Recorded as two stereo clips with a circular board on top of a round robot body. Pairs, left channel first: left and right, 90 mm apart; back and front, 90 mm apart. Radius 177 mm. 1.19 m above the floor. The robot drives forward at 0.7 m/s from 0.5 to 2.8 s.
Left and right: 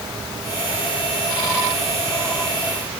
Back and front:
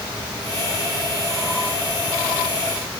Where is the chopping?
No chopping in this recording.